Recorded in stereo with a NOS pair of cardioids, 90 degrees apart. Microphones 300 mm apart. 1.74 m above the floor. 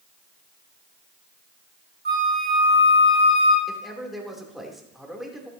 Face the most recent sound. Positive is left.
turn(degrees=0)